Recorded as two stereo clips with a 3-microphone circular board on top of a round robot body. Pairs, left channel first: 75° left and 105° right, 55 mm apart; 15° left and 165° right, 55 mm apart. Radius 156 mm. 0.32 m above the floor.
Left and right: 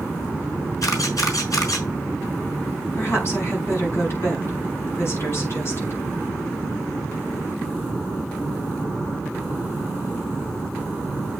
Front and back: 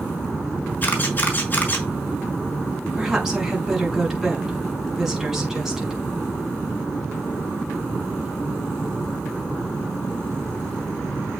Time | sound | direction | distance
0.8 | a camera shutter | 75° left | 3.5 m
2.9 | a woman speaking | 115° left | 5 m